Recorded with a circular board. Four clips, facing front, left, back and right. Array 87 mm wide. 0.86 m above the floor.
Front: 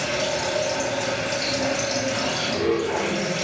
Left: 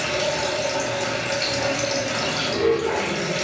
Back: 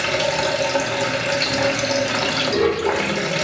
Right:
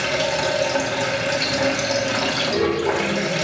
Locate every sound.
0.0 s running water: 160° right, 1.8 m